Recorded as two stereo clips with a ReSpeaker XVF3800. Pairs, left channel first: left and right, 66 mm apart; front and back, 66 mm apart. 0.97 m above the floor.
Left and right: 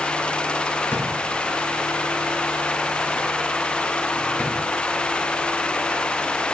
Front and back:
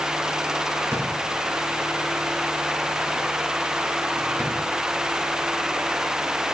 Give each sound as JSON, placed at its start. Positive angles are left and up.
{"t": 0.9, "sound": "a drawer", "azimuth_deg": 140, "distance_m": 1.9}